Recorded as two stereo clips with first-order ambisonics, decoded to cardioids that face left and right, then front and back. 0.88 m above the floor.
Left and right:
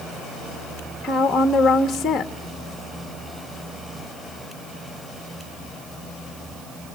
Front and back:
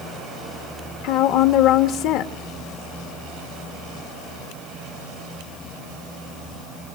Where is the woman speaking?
10° left, 1.3 m.